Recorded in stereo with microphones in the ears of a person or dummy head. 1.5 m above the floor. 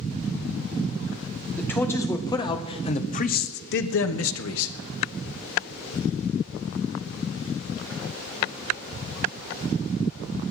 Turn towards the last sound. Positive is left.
turn(degrees=75)  # may be behind; listen again after turning